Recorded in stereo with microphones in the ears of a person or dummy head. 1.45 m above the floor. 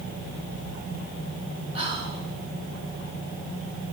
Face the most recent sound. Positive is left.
turn(degrees=-30)  # may be behind; listen again after turning